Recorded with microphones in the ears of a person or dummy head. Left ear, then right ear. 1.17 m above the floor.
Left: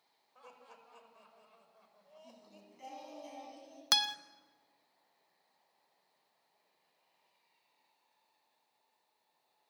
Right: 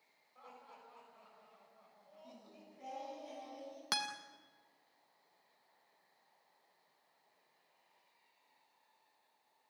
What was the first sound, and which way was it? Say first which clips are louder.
Laughter: even; 80° left.